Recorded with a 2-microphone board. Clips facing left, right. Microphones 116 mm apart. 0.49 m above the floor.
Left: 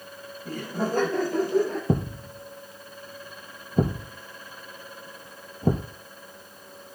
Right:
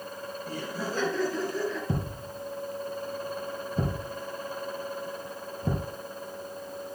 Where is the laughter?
55° left (ahead or behind), 3.5 m; by 1.8 s 50° left (ahead or behind), 2 m.